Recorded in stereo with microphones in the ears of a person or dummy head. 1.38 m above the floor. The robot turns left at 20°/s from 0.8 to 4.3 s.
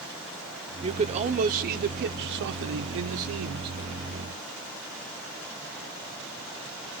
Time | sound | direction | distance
0.8 | a man speaking | 30° right | 0.9 m